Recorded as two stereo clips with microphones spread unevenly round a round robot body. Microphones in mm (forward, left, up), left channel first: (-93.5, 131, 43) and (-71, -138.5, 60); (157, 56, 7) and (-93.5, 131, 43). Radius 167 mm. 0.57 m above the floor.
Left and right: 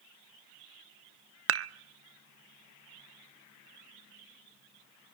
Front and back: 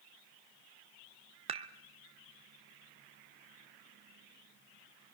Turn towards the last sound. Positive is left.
turn(degrees=-125)